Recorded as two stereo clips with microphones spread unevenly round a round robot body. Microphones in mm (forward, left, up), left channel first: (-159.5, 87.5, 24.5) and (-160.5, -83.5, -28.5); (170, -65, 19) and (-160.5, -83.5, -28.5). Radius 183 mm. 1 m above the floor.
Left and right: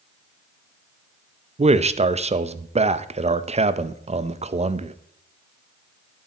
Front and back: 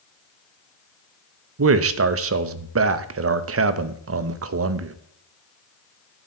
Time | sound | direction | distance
1.6 | a man speaking | 135° right | 0.9 m